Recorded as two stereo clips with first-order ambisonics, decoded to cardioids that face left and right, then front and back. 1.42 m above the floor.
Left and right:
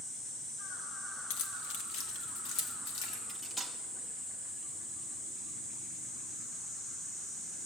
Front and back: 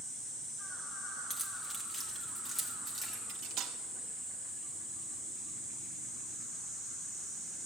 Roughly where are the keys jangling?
Left.